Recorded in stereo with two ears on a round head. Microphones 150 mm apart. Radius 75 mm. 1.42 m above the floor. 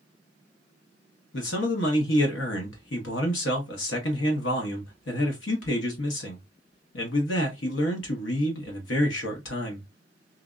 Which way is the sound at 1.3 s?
80° left.